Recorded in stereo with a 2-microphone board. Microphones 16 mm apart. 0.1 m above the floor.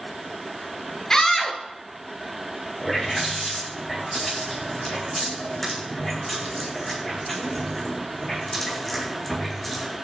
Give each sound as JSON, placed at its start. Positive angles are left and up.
{"t": 1.1, "sound": "a scream", "side_deg": 30, "distance_m": 1.5}
{"t": 2.8, "sound": "a running tap", "side_deg": 15, "distance_m": 4.0}